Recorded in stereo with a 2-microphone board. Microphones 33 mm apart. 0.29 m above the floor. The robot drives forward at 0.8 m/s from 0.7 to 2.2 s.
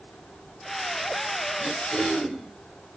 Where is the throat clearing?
5° right (ahead or behind), 1.9 m.